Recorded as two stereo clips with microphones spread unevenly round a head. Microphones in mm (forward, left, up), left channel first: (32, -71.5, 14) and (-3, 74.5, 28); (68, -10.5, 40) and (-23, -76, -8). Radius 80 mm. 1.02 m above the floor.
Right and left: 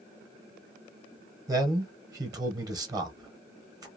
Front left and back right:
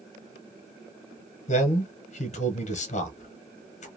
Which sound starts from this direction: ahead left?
A man speaking, at 1.5 s.